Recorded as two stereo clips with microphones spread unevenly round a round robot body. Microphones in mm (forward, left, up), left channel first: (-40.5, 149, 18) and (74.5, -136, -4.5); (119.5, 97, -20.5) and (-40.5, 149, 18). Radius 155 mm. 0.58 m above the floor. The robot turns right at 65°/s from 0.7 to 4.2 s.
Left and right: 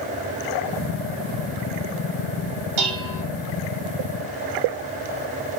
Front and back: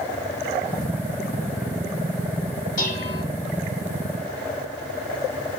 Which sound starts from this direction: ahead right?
Dishes clattering, at 2.8 s.